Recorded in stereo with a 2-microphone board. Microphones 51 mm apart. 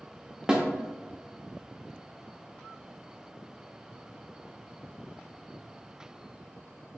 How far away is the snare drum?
About 0.7 m.